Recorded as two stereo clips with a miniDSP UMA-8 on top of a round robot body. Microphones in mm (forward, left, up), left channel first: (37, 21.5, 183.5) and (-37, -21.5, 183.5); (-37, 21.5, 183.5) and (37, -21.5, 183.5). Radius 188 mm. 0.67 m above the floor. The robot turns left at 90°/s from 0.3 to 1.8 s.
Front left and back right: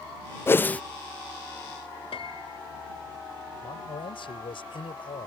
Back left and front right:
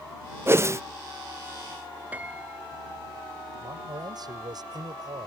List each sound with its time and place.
0.5 s a whoosh: straight ahead; by 0.8 s 35° right
2.1 s a piano: 45° left
3.6 s a man speaking: 10° left